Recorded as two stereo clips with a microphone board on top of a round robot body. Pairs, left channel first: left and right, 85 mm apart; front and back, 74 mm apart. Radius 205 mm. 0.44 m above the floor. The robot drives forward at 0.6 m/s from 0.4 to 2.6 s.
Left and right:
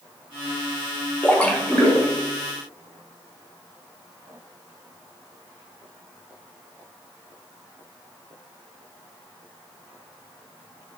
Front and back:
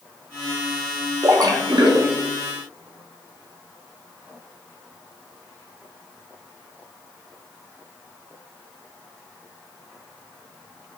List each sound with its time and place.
1.2 s a splash: 160° left, 0.6 m; by 2.2 s 170° left, 1.1 m